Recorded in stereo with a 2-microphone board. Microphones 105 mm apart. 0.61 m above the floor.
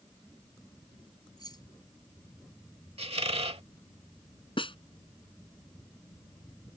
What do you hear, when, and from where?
1.4 s keys jangling: 40° left (ahead or behind)
3.0 s a squeak: 65° right (ahead or behind)
4.6 s a snare drum: 55° left (ahead or behind)